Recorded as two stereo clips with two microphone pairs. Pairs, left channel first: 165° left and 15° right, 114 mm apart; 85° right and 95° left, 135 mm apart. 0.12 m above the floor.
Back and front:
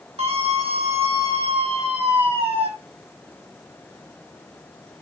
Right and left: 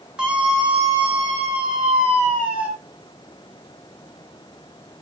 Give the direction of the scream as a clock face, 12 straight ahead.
12 o'clock.